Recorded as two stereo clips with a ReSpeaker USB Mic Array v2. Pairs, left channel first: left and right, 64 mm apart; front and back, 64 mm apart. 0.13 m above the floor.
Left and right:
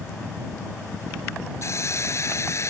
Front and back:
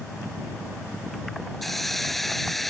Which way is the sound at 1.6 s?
85° left.